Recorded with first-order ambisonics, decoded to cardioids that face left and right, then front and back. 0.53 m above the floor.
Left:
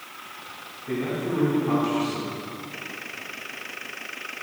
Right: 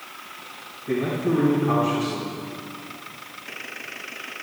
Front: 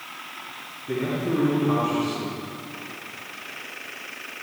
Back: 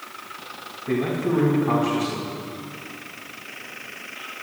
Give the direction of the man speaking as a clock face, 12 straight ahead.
6 o'clock.